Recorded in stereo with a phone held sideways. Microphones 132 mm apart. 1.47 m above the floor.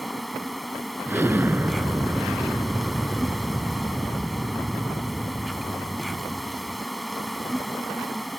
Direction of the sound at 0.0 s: Centre (ahead or behind).